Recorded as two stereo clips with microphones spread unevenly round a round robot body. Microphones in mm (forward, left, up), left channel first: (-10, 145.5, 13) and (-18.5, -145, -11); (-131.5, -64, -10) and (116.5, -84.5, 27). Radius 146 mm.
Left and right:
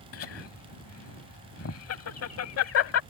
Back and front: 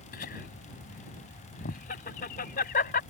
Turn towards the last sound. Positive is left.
turn(degrees=125)